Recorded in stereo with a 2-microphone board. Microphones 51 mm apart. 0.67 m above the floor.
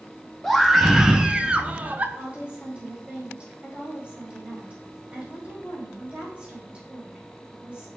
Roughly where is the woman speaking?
Right.